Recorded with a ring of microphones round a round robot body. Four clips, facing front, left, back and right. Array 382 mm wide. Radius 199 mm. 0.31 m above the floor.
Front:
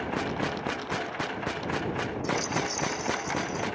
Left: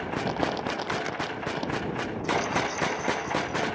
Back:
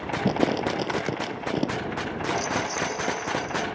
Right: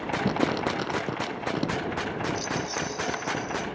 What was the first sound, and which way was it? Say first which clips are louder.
Crumpling: right 3 dB, back 7 dB; 150° right.